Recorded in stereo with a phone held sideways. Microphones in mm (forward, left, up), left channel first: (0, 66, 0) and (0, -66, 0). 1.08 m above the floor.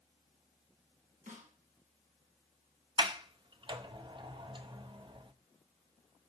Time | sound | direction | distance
1.3 | a snare drum | 70° right (ahead or behind) | 2.5 m
3.0 | a sliding door | 35° right (ahead or behind) | 0.8 m